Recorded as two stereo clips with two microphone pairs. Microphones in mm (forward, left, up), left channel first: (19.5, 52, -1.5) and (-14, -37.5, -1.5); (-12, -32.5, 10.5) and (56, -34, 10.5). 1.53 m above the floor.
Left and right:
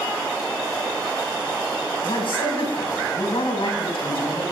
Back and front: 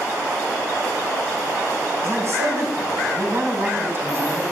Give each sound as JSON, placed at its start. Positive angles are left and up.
{"t": 2.0, "sound": "a man speaking", "azimuth_deg": 45, "distance_m": 9.5}